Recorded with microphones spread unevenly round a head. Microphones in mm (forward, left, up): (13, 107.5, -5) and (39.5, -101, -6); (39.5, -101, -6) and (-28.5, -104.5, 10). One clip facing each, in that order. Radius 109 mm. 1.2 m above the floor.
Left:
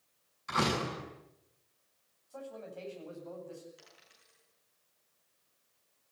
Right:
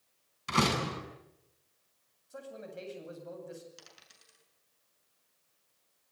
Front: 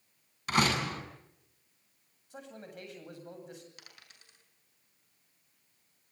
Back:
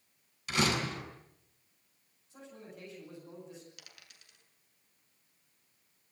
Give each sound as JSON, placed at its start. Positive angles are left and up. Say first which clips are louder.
{"t": 0.5, "sound": "a door slam", "louder": "right 2 dB, front 2 dB", "azimuth_deg": -35, "distance_m": 7.0}
{"t": 2.3, "sound": "a man speaking", "louder": "even, front 3 dB", "azimuth_deg": -15, "distance_m": 8.5}
{"t": 3.8, "sound": "a dropped coin", "louder": "right 1 dB, front 1 dB", "azimuth_deg": -50, "distance_m": 7.0}